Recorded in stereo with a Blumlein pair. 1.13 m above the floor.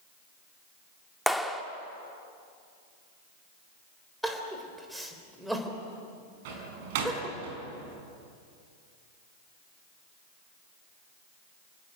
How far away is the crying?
About 3.5 m.